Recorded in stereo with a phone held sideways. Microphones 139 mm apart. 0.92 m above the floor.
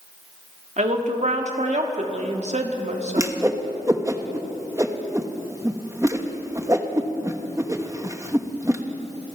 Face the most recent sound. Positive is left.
turn(degrees=-20)  # may be behind; listen again after turning